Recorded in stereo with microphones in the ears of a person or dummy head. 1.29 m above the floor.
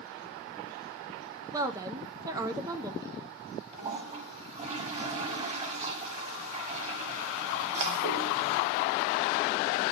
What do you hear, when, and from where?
1.5 s a woman speaking: 15° right (ahead or behind), 0.5 m
3.7 s a toilet flushing: 35° right (ahead or behind), 1.1 m